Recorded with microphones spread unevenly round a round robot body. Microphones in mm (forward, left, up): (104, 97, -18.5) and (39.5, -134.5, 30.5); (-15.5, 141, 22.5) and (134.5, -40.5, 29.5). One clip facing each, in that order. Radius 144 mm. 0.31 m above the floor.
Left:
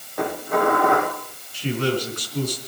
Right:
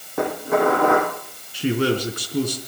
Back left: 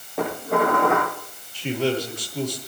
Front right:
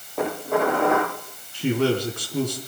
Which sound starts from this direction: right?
A man speaking, at 1.5 s.